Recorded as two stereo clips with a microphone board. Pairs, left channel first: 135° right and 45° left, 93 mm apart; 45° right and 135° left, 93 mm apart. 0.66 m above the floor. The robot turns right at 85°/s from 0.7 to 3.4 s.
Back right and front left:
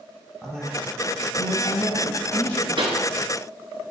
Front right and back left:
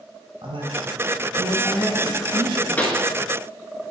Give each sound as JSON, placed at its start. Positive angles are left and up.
{"t": 0.4, "sound": "a woman speaking", "azimuth_deg": 140, "distance_m": 3.0}
{"t": 2.8, "sound": "a pop", "azimuth_deg": 25, "distance_m": 1.6}